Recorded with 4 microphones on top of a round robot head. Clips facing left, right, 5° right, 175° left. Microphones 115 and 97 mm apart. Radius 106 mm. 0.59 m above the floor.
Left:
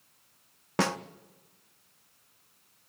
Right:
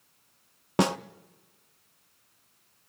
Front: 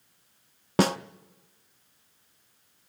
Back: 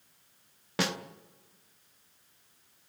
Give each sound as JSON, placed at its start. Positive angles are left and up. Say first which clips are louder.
{"t": 0.8, "sound": "a snare drum", "louder": "right 4 dB, front 9 dB", "azimuth_deg": -25, "distance_m": 0.5}